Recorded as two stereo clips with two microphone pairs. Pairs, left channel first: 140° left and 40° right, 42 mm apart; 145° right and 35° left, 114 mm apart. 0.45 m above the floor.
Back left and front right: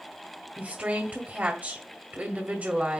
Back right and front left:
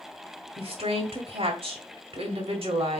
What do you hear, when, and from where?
0.6 s a woman speaking: 10° left, 1.7 m